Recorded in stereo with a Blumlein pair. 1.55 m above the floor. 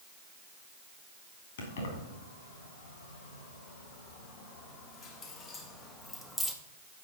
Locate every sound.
1.6 s keys jangling: 60° left, 3.5 m; by 6.5 s straight ahead, 1.6 m